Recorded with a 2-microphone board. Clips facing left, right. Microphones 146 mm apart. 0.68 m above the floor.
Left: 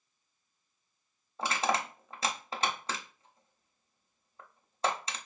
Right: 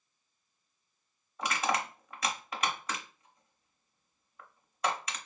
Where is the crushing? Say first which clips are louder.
Left 1 dB; 30° left (ahead or behind), 0.7 m.